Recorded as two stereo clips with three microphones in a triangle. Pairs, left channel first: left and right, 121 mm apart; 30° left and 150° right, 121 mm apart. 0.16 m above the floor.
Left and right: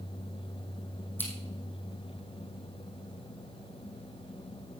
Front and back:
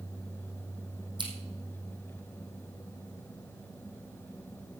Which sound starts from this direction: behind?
Scissors, at 1.2 s.